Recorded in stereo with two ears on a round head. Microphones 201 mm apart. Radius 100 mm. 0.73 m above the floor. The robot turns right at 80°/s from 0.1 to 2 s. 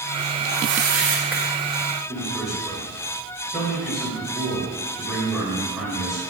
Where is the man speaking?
Centre (ahead or behind), 4.5 m.